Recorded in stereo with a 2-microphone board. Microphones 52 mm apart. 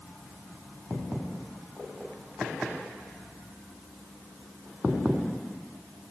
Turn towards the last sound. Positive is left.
No sound to turn to.